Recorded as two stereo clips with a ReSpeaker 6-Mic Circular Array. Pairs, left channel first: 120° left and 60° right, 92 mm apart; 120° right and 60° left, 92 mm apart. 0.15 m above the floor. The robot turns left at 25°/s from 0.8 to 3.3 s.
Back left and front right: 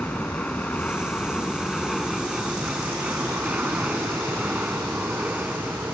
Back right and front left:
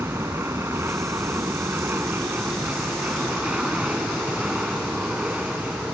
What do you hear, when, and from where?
0.0 s an aircraft: 60° left; by 6.0 s 5° right